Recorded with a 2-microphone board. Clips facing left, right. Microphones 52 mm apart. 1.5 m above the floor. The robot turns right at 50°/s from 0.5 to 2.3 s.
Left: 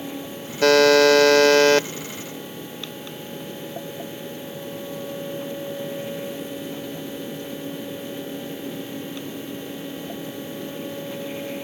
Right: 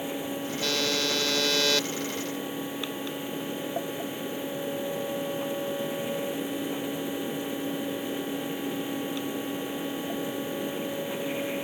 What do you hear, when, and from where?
0.6 s a buzzer: 75° left; by 1.9 s 140° left